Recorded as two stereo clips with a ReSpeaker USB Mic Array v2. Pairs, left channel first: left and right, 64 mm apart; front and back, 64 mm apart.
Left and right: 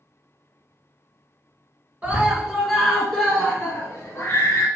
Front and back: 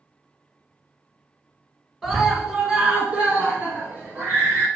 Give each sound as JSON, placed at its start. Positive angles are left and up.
{"t": 2.0, "sound": "a scream", "azimuth_deg": -100, "distance_m": 1.8}